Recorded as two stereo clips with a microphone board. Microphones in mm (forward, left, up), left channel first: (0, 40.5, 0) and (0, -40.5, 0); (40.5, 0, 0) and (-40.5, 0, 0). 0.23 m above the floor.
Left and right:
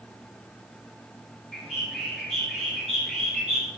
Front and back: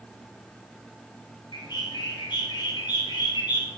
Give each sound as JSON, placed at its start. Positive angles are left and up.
{"t": 1.5, "sound": "a bird", "azimuth_deg": -5, "distance_m": 4.0}